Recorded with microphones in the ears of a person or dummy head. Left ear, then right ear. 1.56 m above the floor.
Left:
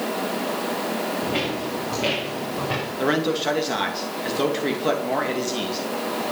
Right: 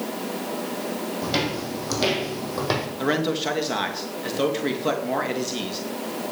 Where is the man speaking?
5° right (ahead or behind), 2 m.